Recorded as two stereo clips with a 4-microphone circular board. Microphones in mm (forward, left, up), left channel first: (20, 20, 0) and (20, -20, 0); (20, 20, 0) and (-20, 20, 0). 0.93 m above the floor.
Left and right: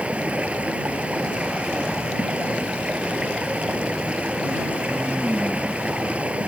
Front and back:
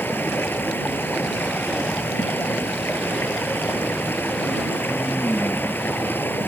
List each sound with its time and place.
0.0 s running water: 35° right